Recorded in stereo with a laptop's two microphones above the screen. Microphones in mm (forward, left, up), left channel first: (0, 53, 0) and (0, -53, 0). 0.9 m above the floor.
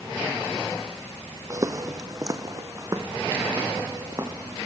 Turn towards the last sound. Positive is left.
turn(degrees=-30)  # may be behind; listen again after turning